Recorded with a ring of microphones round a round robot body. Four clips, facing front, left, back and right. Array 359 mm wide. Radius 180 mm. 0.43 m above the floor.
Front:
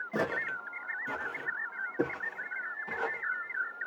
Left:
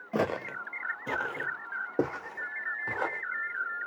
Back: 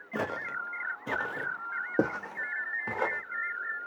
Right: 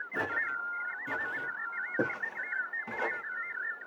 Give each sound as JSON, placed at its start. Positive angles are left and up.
{"t": 0.1, "sound": "footsteps", "azimuth_deg": 80, "distance_m": 0.6}